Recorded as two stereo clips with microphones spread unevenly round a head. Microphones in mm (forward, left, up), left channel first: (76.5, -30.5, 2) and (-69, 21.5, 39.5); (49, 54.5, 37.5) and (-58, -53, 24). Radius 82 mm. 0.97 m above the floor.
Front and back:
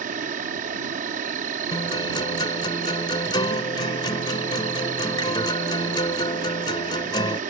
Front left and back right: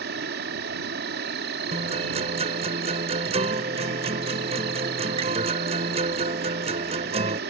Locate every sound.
0.0 s an insect: 155° right
1.7 s a guitar: 85° right